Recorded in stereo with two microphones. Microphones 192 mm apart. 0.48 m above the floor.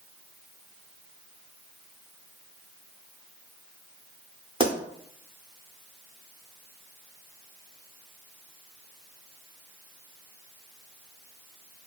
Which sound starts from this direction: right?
A pop, at 4.6 s.